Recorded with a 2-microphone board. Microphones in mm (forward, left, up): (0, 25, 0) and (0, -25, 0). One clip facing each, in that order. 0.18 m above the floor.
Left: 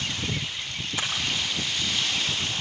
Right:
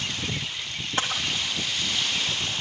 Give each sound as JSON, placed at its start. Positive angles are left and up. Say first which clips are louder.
{"t": 1.0, "sound": "a camera shutter", "louder": "right 3 dB", "side_deg": -50, "distance_m": 3.0}